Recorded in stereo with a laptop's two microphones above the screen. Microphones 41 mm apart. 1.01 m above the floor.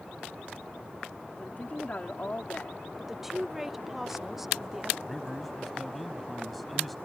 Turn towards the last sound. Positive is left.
turn(degrees=0)  # may be behind; listen again after turning